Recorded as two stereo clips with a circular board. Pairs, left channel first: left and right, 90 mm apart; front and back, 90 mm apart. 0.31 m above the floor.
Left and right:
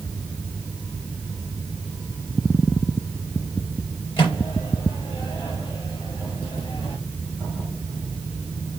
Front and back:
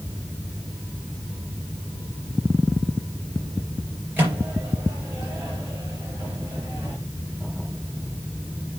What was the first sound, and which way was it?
A microwave, 115° left.